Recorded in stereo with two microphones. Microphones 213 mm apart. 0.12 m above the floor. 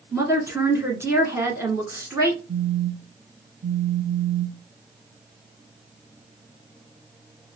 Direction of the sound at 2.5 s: 50° right (ahead or behind).